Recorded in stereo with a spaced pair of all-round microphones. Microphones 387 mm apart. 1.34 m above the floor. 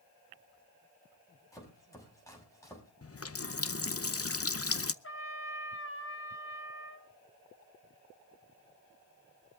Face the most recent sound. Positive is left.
turn(degrees=35)  # may be behind; listen again after turning